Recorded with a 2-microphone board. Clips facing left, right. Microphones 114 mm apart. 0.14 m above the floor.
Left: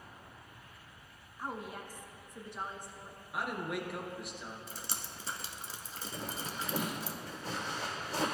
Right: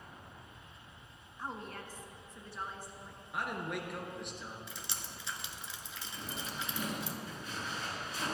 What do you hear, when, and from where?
1.4 s a woman speaking: 10° left (ahead or behind), 1.1 m; by 3.2 s 15° left (ahead or behind), 1.6 m
3.3 s a man speaking: 5° left (ahead or behind), 2 m
4.7 s dripping: 40° left (ahead or behind), 1.2 m
6.1 s a zipper: 75° left (ahead or behind), 3.5 m